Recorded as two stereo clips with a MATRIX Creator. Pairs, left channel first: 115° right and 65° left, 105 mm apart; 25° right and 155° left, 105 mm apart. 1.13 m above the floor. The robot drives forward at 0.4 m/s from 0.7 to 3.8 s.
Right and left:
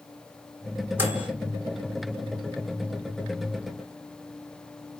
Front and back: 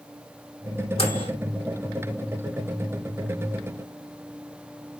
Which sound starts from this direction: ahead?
A microwave, at 1.0 s.